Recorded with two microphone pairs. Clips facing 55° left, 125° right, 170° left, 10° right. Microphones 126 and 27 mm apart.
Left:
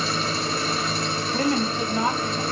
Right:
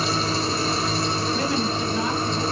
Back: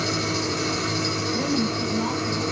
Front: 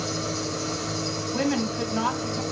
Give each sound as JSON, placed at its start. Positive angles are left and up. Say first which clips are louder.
{"t": 0.0, "sound": "an engine running", "louder": "right 2 dB, back 4 dB", "azimuth_deg": -175, "distance_m": 4.5}
{"t": 1.3, "sound": "a woman speaking", "louder": "left 5 dB, front 2 dB", "azimuth_deg": 5, "distance_m": 3.5}